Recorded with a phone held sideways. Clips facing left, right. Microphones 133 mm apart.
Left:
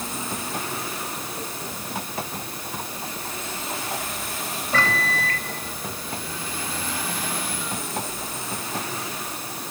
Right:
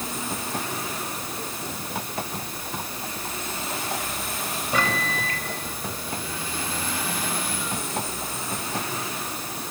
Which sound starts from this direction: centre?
A microwave, at 4.7 s.